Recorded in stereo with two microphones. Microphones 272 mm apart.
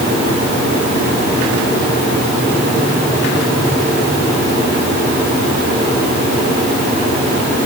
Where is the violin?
I don't hear a violin.